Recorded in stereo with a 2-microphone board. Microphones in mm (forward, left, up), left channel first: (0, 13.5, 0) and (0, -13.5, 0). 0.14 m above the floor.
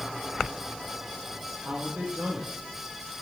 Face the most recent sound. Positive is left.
turn(degrees=-60)  # may be behind; listen again after turning